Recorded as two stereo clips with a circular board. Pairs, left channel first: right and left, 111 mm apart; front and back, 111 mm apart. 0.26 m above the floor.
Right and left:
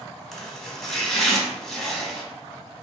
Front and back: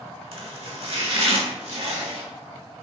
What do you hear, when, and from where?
0.3 s chopping: 175° right, 0.8 m